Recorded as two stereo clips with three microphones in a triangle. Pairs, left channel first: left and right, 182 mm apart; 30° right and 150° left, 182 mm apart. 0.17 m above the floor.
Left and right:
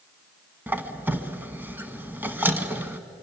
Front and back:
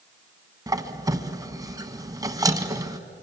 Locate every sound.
0.7 s a squeak: 160° right, 1.0 m